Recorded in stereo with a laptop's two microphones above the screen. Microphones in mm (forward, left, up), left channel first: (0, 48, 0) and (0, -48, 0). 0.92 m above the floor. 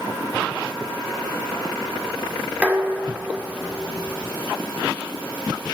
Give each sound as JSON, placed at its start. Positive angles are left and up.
{"t": 2.6, "sound": "dishes clattering", "side_deg": -15, "distance_m": 1.9}